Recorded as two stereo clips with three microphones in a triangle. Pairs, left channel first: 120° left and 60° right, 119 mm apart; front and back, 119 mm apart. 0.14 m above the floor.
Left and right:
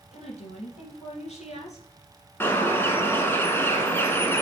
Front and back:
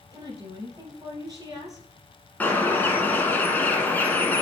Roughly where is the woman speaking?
Behind left.